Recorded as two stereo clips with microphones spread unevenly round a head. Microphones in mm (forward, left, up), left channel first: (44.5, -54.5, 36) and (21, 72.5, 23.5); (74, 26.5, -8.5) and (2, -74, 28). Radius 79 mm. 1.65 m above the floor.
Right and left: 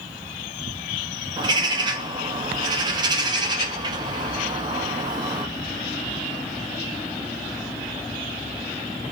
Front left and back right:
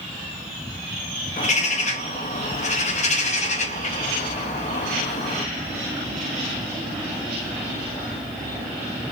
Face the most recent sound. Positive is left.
turn(degrees=55)